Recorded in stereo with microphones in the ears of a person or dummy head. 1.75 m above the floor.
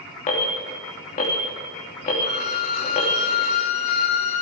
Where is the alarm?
35° left (ahead or behind), 2.5 m.